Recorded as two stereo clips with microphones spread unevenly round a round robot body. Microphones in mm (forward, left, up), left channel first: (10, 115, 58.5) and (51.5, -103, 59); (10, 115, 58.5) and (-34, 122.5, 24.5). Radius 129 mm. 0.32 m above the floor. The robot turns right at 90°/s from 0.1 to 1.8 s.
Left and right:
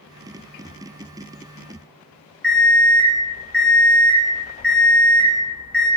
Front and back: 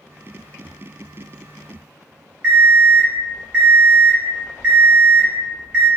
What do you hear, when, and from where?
2.4 s an alarm clock: 175° right, 1.0 m